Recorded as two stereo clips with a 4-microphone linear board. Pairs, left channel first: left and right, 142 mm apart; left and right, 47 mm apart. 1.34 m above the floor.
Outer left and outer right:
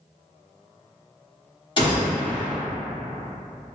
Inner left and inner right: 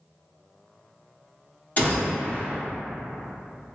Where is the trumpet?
I don't hear a trumpet.